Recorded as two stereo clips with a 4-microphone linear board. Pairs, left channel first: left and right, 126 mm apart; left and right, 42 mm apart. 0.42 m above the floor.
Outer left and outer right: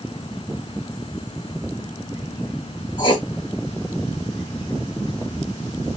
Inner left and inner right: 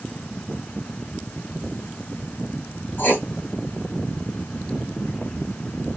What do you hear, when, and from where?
3.0 s writing: 40° left (ahead or behind), 1.9 m